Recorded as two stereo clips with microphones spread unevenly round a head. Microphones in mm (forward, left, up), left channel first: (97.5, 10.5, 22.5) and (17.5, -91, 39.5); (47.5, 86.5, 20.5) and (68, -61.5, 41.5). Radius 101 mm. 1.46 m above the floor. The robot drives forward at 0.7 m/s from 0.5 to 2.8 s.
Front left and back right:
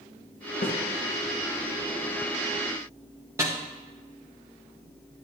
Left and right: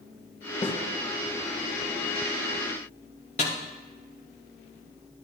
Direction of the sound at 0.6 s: 40° left.